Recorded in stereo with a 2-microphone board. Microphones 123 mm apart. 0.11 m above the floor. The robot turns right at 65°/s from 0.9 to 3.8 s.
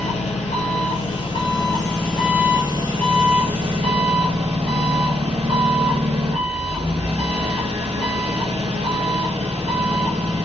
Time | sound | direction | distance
0.0 | an engine running | 100° left | 1.5 m